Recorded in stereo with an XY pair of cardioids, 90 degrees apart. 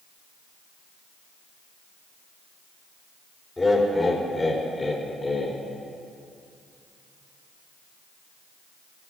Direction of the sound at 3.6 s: 25° left.